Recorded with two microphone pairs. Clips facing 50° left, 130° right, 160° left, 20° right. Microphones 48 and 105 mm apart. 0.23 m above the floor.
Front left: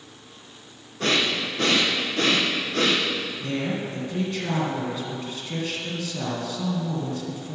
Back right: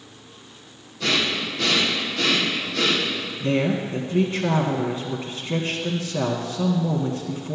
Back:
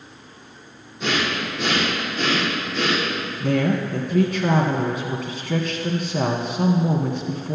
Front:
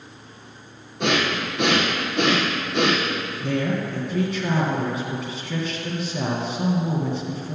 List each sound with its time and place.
1.0 s breathing: straight ahead, 3 m
3.4 s a woman speaking: 175° left, 1.7 m